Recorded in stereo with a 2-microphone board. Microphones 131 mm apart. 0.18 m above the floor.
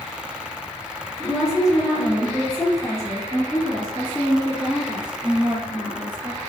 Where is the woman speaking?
Centre (ahead or behind), 1.4 m; by 6.4 s 40° right (ahead or behind), 2.5 m.